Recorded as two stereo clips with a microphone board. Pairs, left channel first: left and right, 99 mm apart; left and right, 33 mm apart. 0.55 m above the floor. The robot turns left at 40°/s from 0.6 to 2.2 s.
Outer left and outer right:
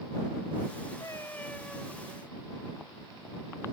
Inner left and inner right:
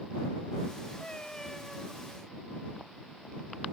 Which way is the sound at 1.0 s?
35° left.